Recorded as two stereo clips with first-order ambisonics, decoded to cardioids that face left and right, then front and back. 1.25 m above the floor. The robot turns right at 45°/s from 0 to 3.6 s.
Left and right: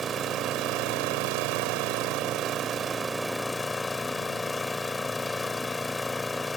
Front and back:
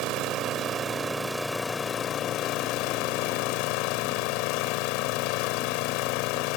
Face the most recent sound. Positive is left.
turn(degrees=10)